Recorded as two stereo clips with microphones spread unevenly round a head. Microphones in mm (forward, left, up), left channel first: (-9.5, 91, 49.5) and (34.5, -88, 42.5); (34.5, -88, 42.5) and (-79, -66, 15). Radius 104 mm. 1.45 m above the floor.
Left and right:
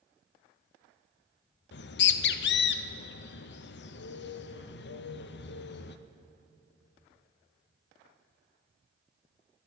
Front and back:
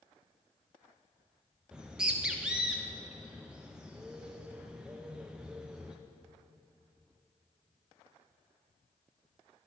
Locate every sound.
1.7 s a bird: 90° left, 0.7 m